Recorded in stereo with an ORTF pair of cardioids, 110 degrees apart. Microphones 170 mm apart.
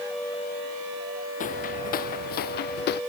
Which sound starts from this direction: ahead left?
Footsteps, at 1.4 s.